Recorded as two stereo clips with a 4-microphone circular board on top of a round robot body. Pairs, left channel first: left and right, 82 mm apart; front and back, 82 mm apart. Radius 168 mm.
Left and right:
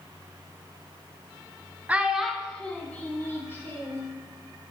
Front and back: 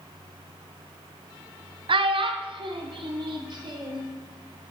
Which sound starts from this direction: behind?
A child speaking, at 1.9 s.